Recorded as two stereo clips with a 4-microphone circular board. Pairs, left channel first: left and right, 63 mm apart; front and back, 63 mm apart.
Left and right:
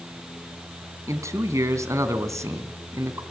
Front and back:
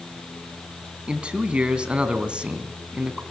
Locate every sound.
1.1 s a man speaking: 110° right, 2.5 m